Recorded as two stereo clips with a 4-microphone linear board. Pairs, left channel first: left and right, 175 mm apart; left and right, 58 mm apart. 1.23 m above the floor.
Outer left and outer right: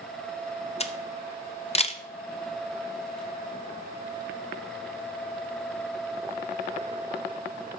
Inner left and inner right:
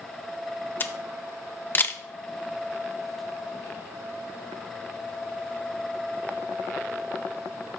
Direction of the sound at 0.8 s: 35° left (ahead or behind).